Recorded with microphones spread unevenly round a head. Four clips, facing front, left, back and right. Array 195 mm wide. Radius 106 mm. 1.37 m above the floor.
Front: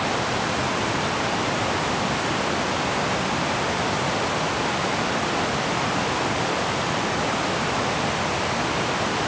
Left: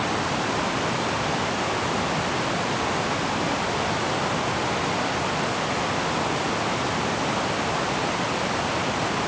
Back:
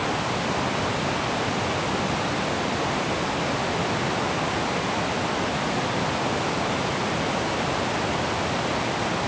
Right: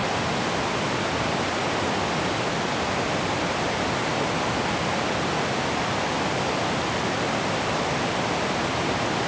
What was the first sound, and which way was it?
Only background noise.